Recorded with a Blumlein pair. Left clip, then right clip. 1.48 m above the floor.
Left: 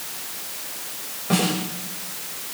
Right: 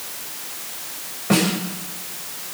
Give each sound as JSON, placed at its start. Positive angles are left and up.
{"t": 1.3, "sound": "a snare drum", "azimuth_deg": -15, "distance_m": 6.5}